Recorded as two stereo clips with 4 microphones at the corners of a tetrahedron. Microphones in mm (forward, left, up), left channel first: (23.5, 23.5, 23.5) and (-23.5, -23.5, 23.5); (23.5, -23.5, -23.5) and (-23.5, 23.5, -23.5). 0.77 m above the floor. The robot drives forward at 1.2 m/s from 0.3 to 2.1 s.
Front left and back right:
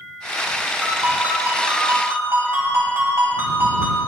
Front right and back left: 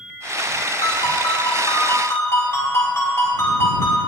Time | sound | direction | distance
0.8 | a ringtone | 70° right | 5 m